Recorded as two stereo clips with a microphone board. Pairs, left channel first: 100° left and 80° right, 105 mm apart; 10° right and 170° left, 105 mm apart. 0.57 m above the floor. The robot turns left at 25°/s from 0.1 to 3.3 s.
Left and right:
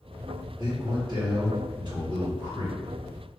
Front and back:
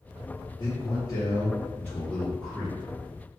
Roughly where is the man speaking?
Ahead right.